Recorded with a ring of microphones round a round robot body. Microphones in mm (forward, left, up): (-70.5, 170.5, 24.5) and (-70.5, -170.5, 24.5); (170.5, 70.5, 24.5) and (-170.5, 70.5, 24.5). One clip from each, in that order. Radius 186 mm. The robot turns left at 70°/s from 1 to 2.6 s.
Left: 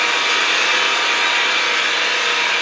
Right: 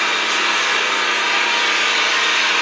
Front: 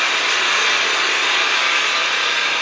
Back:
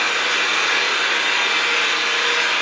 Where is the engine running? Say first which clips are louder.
Left 1 dB, front 2 dB; 25° left, 1.2 m; by 2.6 s 85° right, 1.2 m.